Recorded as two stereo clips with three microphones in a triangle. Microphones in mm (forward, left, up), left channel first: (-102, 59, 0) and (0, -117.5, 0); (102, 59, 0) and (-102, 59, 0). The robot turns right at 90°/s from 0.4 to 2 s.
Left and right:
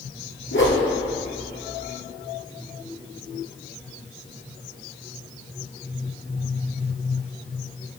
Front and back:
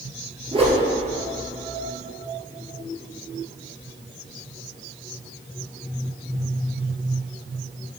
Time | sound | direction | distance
0.5 | a whoosh | 110° left | 1.3 m